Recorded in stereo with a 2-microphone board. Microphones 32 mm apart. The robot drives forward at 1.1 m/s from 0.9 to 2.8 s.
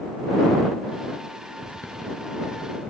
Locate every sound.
1.6 s writing: 60° left (ahead or behind), 5.5 m; by 2.9 s 50° left (ahead or behind), 6.5 m